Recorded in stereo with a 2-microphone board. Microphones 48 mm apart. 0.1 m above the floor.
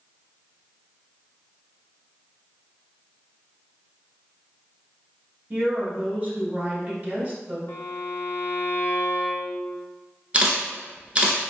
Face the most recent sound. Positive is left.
turn(degrees=-25)  # may be behind; listen again after turning